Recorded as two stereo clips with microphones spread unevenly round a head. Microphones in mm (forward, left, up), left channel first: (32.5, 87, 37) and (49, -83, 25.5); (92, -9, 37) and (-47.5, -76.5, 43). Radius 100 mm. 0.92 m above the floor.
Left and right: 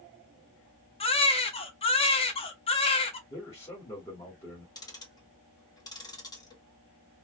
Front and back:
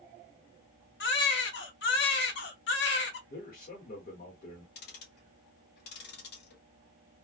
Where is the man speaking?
20° left, 1.6 m.